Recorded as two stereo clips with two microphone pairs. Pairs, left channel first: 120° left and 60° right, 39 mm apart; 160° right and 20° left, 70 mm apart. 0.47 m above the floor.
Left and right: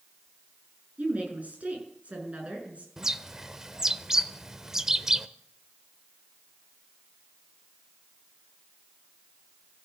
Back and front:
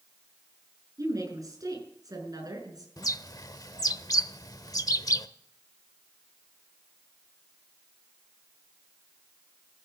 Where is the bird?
135° right, 0.8 m.